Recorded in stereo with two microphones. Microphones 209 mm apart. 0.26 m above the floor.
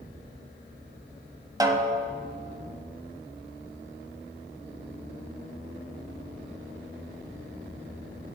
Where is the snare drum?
20° right (ahead or behind), 0.9 m.